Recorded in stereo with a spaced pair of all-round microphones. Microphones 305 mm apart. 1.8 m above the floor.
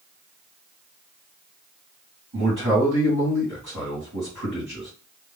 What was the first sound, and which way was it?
A man speaking, 75° right (ahead or behind).